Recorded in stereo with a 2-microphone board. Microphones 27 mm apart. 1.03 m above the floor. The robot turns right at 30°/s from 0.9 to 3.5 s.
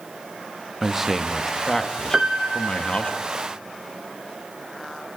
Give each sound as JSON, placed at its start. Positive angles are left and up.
{"t": 0.8, "sound": "a man speaking", "azimuth_deg": -15, "distance_m": 1.3}
{"t": 2.1, "sound": "a piano", "azimuth_deg": -150, "distance_m": 1.2}